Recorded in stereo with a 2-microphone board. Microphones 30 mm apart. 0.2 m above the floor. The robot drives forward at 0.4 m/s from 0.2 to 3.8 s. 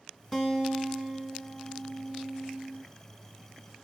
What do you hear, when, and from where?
0.3 s a guitar: centre (ahead or behind), 2 m